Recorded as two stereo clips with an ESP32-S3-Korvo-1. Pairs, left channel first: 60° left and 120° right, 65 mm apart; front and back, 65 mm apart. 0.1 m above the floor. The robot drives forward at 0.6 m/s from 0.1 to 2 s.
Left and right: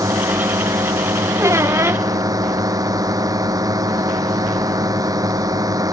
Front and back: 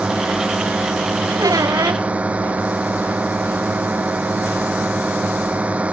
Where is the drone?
110° right; by 5.9 s 115° right.